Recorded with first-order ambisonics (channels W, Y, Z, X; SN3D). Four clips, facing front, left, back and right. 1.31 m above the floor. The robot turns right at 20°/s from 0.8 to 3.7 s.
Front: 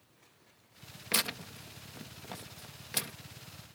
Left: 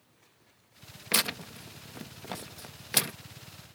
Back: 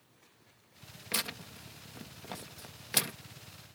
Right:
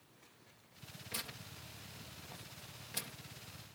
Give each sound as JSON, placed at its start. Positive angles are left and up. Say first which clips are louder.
{"t": 1.1, "sound": "tearing paper", "louder": "left 16 dB, front 3 dB", "azimuth_deg": 75}